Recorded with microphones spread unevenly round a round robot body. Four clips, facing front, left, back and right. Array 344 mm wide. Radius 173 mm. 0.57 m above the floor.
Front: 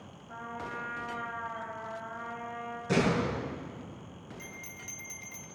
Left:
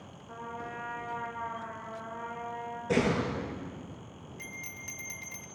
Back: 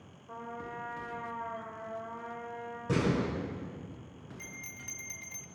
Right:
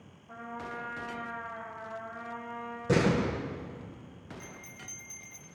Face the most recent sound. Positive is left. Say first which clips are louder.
# left 2 dB, front 2 dB
turn(degrees=125)